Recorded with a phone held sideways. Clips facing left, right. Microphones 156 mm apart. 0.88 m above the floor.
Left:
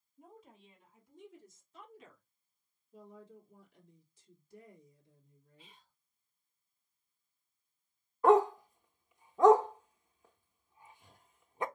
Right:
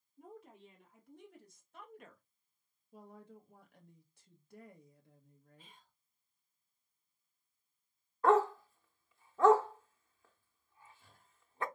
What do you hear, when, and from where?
0.2 s a woman speaking: 70° right (ahead or behind), 2.5 m; by 2.2 s 50° right (ahead or behind), 1.0 m
2.9 s a woman speaking: 65° right (ahead or behind), 1.5 m
5.6 s whispering: 50° right (ahead or behind), 1.7 m
8.2 s a dog barking: 15° left (ahead or behind), 0.6 m